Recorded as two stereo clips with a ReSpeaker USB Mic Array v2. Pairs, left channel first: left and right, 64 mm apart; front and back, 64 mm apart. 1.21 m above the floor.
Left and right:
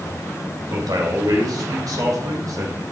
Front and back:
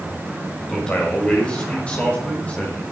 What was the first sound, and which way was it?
A man speaking, 75° right.